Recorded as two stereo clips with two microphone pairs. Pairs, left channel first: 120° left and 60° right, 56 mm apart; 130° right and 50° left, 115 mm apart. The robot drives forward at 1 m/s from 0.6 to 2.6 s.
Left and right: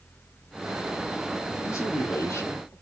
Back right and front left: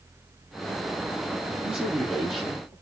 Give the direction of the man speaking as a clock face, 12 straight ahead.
8 o'clock.